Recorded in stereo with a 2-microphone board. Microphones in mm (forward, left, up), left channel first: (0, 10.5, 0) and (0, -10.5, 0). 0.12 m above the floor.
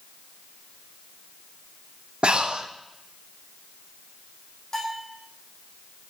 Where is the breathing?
70° right (ahead or behind), 2 m.